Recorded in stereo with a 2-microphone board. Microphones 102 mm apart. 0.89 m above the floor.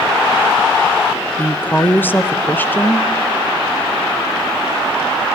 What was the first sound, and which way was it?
A woman speaking, 20° left (ahead or behind).